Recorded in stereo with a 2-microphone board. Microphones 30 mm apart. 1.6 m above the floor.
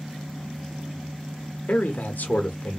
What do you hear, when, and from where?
1.7 s a man speaking: 70° left (ahead or behind), 1.0 m